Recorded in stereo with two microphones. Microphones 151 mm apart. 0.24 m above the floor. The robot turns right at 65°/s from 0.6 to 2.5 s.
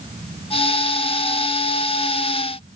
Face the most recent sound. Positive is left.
No sound to turn to.